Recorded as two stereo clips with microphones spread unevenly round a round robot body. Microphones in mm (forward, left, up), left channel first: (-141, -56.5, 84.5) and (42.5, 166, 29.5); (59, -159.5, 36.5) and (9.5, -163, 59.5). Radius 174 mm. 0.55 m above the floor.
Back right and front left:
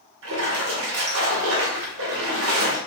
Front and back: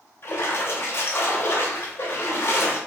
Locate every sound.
0.2 s a splash: 20° left, 1.5 m